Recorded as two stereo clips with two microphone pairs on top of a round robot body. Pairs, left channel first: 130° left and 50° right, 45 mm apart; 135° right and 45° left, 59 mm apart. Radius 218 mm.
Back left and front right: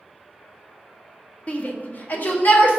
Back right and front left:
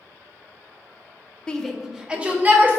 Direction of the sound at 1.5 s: 160° left.